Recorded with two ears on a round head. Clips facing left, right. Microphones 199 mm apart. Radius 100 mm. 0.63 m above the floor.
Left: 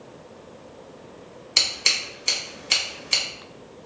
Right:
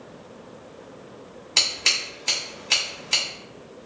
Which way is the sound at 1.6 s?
15° left (ahead or behind).